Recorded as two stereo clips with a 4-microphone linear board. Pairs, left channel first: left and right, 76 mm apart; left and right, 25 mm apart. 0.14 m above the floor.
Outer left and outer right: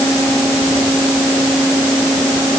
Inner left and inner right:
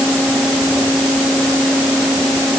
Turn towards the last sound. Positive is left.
No sound to turn to.